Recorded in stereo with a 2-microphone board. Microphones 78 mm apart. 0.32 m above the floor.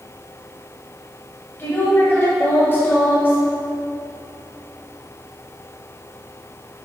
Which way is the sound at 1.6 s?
30° left (ahead or behind).